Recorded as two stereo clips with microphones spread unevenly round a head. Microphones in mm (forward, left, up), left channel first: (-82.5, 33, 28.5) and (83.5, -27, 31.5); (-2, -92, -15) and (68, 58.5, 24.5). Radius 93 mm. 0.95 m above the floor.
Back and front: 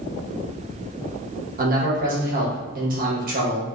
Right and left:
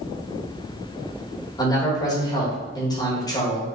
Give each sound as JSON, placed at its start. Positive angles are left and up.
{"t": 1.6, "sound": "a man speaking", "azimuth_deg": -55, "distance_m": 1.2}